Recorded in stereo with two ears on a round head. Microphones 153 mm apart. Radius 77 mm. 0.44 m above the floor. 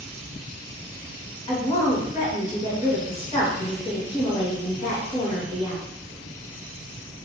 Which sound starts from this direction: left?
A woman speaking, at 1.5 s.